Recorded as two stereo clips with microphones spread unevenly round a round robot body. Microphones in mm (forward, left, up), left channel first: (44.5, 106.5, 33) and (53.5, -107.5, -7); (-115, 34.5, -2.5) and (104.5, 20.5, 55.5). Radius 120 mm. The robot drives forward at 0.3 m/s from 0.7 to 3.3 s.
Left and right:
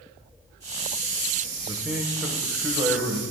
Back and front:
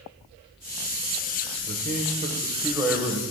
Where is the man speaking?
35° right, 0.7 m; by 3.2 s 145° right, 0.7 m.